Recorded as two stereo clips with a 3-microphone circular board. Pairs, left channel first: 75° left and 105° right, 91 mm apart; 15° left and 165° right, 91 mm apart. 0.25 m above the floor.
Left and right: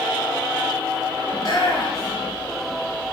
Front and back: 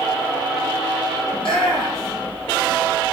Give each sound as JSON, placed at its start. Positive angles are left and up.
{"t": 1.3, "sound": "a shout", "azimuth_deg": 30, "distance_m": 4.0}